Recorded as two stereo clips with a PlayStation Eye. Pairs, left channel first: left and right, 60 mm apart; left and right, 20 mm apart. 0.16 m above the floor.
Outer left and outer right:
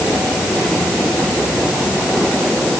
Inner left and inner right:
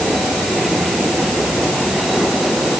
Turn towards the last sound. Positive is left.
No sound to turn to.